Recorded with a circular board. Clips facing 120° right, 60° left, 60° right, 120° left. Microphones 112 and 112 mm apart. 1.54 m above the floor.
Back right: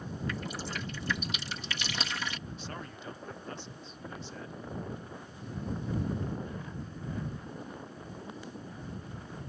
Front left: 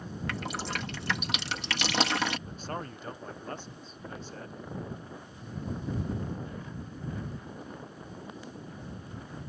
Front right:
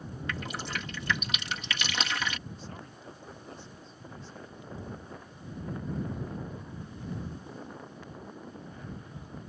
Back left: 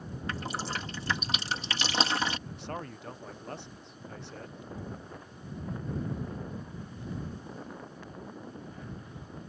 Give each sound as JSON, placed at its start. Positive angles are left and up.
{"t": 0.3, "sound": "dripping", "azimuth_deg": 65}
{"t": 2.5, "sound": "a man speaking", "azimuth_deg": 105}